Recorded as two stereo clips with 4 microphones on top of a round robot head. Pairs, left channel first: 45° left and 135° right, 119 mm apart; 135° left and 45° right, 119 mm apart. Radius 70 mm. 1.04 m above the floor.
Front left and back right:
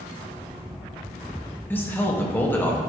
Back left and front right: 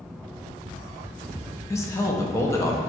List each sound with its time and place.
1.7 s a man speaking: 100° left, 0.6 m